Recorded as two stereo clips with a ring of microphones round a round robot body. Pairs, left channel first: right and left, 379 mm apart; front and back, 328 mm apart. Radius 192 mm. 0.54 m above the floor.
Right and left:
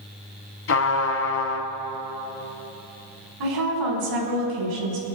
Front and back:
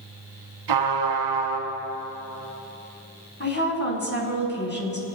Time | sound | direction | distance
0.7 | a trumpet | 150° right | 2 m
3.4 | a woman speaking | 60° left | 5 m